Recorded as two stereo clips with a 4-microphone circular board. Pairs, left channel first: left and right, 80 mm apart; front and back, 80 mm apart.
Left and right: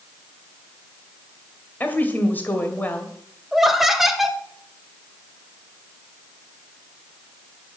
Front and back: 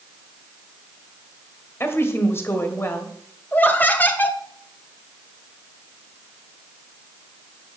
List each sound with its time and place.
1.8 s a woman speaking: 35° left, 1.8 m
3.5 s laughter: 10° right, 1.1 m